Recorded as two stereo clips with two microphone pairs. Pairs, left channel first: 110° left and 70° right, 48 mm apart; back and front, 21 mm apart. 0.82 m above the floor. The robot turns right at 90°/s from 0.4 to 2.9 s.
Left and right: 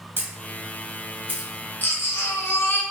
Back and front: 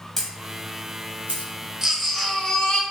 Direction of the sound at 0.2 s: 100° right.